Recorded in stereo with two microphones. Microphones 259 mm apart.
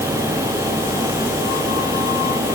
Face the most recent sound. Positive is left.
No sound to turn to.